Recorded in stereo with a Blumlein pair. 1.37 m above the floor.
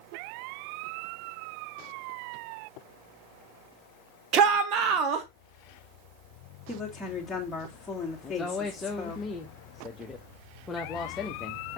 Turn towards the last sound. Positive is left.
turn(degrees=15)